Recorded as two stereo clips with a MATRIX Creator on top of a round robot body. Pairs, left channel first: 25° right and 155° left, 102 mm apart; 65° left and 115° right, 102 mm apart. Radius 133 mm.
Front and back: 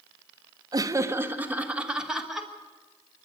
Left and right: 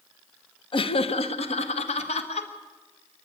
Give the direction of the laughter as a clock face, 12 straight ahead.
9 o'clock.